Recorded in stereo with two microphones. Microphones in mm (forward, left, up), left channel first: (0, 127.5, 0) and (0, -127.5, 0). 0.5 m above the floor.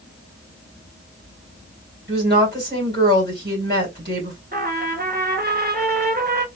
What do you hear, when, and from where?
2.1 s a woman speaking: 45° right (ahead or behind), 3 m
4.5 s a trumpet: 40° right (ahead or behind), 1.2 m